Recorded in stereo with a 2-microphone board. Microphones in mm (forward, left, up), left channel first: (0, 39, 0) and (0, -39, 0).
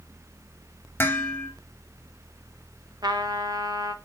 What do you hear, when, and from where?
1.0 s dishes clattering: 25° left (ahead or behind), 2.5 m
3.0 s a trumpet: 55° right (ahead or behind), 0.9 m